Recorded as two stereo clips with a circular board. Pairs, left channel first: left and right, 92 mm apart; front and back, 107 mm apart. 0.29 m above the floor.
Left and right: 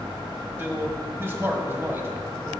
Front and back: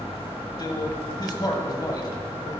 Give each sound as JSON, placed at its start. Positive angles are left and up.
{"t": 0.6, "sound": "a man speaking", "azimuth_deg": -35, "distance_m": 1.7}